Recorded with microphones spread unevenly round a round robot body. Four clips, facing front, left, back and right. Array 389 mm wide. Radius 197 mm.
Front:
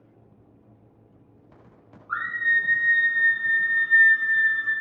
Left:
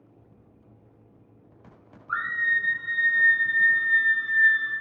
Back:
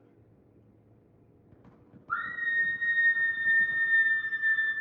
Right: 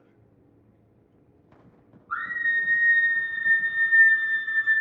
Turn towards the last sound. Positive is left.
turn(degrees=-35)